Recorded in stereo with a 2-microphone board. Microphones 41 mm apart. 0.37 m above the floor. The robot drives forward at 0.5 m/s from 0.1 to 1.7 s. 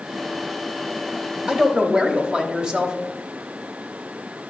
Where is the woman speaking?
20° right (ahead or behind), 0.8 m.